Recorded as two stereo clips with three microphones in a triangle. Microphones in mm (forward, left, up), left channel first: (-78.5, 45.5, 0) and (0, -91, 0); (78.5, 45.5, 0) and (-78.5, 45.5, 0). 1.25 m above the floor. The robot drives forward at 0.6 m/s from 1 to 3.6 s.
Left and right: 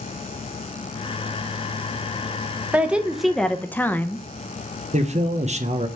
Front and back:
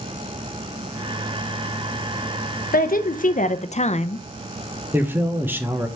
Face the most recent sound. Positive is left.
turn(degrees=-105)